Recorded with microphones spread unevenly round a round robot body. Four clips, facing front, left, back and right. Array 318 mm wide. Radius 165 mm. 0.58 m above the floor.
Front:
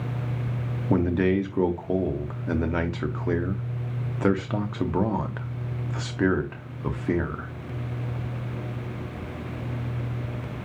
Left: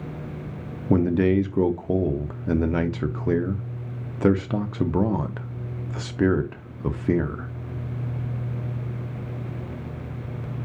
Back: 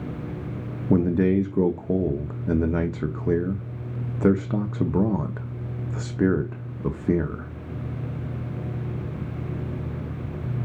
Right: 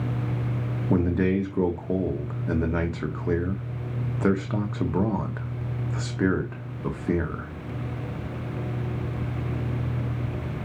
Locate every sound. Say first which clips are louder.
0.9 s a man speaking: left 4 dB, back 2 dB; 135° left, 0.7 m